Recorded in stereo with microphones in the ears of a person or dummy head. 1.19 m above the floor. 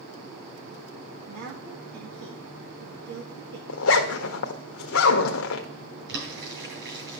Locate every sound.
1.3 s a woman speaking: 75° right (ahead or behind), 1.7 m
3.7 s a zipper: 75° left (ahead or behind), 1.3 m
6.1 s boiling: 65° right (ahead or behind), 8 m